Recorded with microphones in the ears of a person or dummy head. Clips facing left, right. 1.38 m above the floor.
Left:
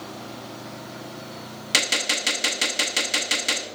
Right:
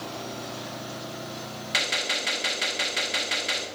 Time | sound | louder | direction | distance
1.7 | a gunshot | left 4 dB | 50° left (ahead or behind) | 0.9 m